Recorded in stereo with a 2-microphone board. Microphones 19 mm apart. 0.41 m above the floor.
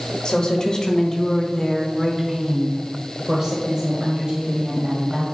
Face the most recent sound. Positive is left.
turn(degrees=-40)  # may be behind; listen again after turning